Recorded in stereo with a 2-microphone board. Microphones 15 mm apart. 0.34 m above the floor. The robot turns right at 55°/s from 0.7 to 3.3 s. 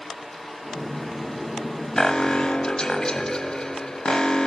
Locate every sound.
2.0 s an alarm: 40° left, 1.3 m; by 4.5 s 110° left, 1.3 m